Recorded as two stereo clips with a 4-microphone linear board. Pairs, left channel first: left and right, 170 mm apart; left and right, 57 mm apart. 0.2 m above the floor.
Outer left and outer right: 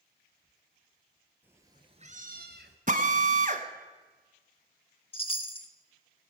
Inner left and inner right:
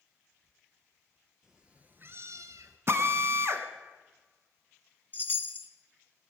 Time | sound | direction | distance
1.4 | a cat meowing | 10° right (ahead or behind) | 1.7 m
2.9 | a drill | 50° right (ahead or behind) | 1.3 m
5.1 | a chime | 35° left (ahead or behind) | 1.0 m